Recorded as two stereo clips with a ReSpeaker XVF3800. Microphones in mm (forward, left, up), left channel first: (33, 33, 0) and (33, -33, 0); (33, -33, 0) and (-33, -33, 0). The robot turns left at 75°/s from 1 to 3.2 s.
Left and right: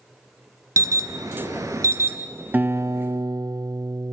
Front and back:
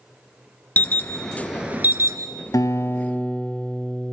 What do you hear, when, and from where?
0.8 s an alarm: 60° right, 1.8 m; by 2.2 s 145° right, 1.8 m
2.5 s a guitar: 30° right, 0.7 m; by 4.1 s 75° right, 0.7 m